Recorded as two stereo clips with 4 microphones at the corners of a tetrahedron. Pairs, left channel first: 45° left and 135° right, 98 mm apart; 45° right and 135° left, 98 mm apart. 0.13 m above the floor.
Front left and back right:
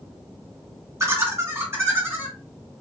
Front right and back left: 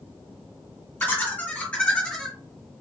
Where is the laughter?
100° right, 2 m; by 2.4 s 120° right, 1.8 m.